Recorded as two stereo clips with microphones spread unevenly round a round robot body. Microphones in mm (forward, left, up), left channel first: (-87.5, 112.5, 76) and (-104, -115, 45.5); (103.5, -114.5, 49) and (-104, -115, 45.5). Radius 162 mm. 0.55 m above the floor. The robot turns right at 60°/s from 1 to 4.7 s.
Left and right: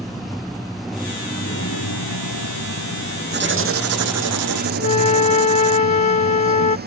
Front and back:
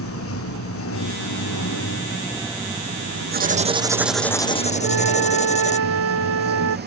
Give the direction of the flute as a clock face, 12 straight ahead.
7 o'clock.